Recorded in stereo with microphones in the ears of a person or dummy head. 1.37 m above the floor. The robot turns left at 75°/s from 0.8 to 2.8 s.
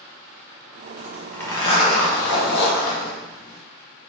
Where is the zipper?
160° right, 0.9 m; by 3.6 s 65° left, 0.9 m.